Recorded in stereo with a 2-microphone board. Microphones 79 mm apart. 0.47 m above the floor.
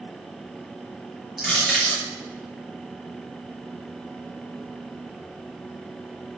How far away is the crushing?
About 6.5 m.